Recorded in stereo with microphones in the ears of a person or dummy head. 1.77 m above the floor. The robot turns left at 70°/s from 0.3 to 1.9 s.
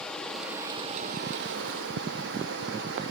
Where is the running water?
10° left, 1.2 m; by 3.1 s 105° right, 1.2 m.